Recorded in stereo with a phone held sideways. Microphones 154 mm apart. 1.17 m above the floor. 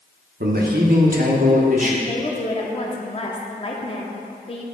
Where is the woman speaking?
35° left (ahead or behind), 0.8 m.